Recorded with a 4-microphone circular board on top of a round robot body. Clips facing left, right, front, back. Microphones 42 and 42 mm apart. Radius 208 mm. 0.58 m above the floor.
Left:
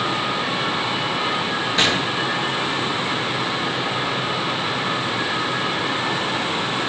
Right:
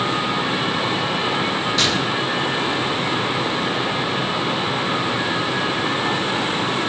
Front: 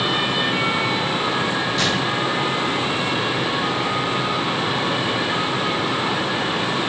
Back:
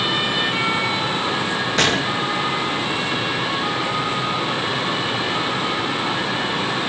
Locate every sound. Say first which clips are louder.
1.8 s a gunshot: left 3 dB, back 5 dB; 150° left, 2.5 m